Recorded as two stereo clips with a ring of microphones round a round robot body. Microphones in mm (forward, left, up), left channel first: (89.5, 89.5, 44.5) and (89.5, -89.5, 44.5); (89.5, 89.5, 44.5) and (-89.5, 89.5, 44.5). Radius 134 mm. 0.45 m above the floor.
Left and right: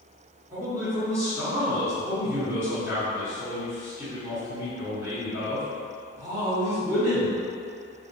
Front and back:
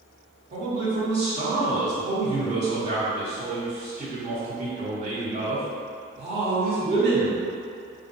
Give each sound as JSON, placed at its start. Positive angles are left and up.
{"t": 0.5, "sound": "a man speaking", "azimuth_deg": -160, "distance_m": 1.0}